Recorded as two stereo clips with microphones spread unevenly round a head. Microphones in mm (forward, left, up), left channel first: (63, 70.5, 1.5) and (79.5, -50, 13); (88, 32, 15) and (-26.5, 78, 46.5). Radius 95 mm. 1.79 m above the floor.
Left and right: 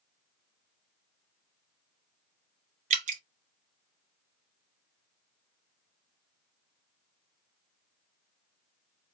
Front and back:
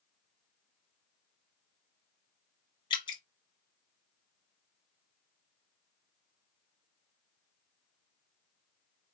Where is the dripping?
95° right, 0.8 m.